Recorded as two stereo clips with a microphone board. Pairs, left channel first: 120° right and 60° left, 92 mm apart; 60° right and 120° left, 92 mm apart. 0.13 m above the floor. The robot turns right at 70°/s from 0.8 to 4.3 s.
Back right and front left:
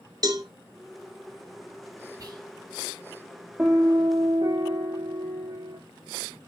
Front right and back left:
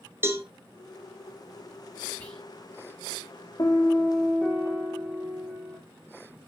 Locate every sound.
0.2 s a cowbell: 70° left, 1.3 m
2.2 s whispering: 10° left, 4 m; by 2.4 s 25° left, 4 m
3.6 s a piano: 15° right, 1.4 m; by 5.8 s 35° left, 1.4 m